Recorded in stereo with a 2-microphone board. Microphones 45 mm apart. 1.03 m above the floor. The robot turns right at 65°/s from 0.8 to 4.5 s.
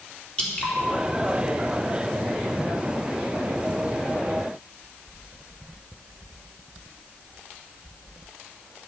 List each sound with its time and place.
0.4 s dripping: 20° left (ahead or behind), 3 m